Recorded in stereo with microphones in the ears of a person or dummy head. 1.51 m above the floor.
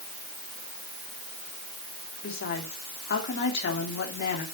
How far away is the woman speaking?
About 3 m.